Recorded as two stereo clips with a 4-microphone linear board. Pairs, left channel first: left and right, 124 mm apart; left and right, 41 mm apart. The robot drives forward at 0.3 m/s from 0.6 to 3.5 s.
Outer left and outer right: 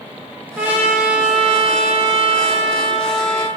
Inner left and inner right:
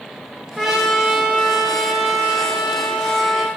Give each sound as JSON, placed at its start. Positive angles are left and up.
{"t": 0.6, "sound": "a trumpet", "side_deg": -15, "distance_m": 0.6}